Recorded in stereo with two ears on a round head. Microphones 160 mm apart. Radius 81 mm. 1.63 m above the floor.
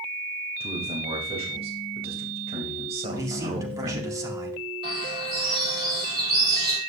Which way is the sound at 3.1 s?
20° right (ahead or behind).